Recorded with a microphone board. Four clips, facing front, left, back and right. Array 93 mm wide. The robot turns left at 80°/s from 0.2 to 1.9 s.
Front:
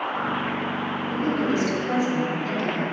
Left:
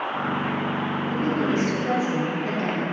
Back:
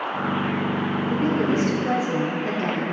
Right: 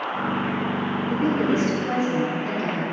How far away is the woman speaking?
About 1.5 m.